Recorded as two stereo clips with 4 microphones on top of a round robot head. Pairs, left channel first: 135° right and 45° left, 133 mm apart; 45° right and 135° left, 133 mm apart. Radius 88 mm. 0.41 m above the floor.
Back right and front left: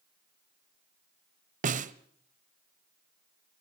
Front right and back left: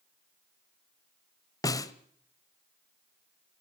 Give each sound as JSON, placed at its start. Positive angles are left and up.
{"t": 1.6, "sound": "a snare drum", "azimuth_deg": 20, "distance_m": 1.0}